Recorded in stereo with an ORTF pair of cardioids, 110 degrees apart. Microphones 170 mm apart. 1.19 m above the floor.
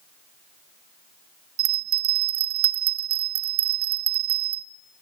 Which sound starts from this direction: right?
A bell, at 1.6 s.